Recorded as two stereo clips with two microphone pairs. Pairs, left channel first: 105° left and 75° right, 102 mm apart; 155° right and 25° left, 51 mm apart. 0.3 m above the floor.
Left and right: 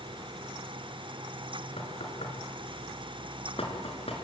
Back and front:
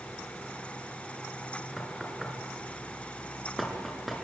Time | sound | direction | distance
1.8 | knocking | 115° left | 4.5 m